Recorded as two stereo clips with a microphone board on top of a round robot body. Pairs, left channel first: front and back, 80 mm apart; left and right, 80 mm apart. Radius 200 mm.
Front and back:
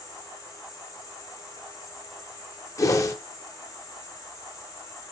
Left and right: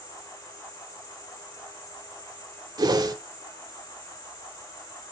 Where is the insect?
50° left, 4 m.